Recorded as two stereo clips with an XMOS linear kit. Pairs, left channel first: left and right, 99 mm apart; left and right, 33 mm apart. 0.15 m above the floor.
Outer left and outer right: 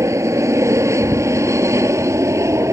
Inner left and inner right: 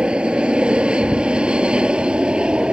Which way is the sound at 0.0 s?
30° right (ahead or behind).